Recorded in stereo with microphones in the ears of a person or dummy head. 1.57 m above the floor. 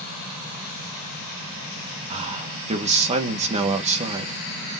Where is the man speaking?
35° right (ahead or behind), 2.5 m.